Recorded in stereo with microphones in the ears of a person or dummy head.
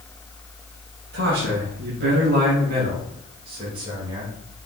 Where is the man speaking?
85° right, 2.5 m; by 4.3 s 20° right (ahead or behind), 4 m.